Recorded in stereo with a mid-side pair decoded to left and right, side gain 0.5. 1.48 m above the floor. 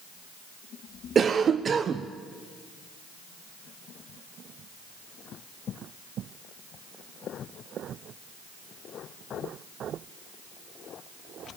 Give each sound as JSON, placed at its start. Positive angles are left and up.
{"t": 1.1, "sound": "a cough", "azimuth_deg": -40, "distance_m": 0.9}